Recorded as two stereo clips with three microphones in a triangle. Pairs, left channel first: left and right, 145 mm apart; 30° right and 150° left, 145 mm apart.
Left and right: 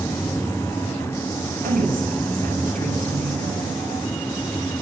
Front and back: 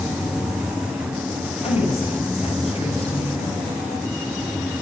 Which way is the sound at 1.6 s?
75° right.